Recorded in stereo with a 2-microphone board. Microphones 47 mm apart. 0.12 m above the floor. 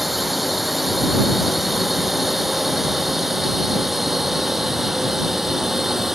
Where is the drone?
5° right (ahead or behind); by 6.2 s 10° right (ahead or behind).